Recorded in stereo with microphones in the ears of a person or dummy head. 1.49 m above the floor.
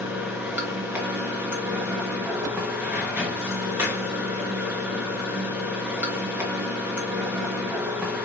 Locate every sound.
0.0 s running water: 5° right (ahead or behind), 1.2 m